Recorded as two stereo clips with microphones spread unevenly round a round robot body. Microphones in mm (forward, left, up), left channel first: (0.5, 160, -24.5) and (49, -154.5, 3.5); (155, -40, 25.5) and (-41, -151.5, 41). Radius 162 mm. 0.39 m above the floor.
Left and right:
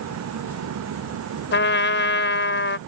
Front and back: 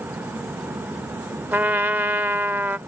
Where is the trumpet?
125° left.